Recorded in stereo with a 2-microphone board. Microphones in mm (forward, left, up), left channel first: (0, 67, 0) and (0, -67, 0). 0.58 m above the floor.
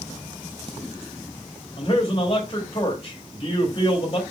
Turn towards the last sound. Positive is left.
turn(degrees=30)  # may be behind; listen again after turning